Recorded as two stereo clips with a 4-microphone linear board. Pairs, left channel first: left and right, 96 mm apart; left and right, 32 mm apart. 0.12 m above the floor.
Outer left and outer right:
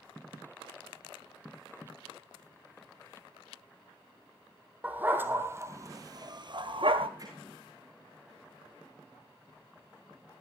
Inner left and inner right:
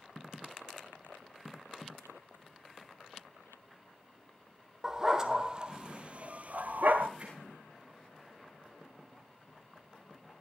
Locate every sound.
4.8 s a dog barking: 15° right (ahead or behind), 1.8 m; by 7.1 s 65° right (ahead or behind), 1.2 m
7.2 s hammering: 40° right (ahead or behind), 8.5 m